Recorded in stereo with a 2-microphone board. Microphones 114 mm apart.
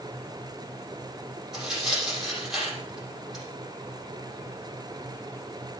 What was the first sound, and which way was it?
Tearing paper, 5° right (ahead or behind).